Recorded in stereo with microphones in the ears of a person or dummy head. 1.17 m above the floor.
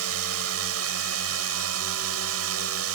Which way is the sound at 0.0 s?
75° right (ahead or behind).